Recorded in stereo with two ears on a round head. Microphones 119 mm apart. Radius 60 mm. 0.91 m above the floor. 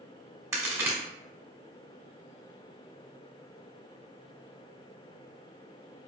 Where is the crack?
20° right (ahead or behind), 1.1 m.